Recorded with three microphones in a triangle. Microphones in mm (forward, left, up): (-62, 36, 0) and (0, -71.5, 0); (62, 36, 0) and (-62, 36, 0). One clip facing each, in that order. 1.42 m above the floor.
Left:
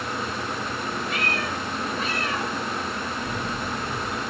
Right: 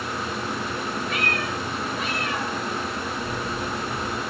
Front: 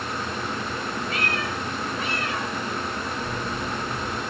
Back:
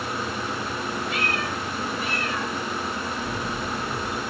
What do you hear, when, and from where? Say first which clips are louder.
1.1 s a cat meowing: right 1 dB, even; 60° left, 4.5 m; by 2.5 s 70° left, 5 m
3.2 s a camera shutter: right 1 dB, even; 115° left, 5.5 m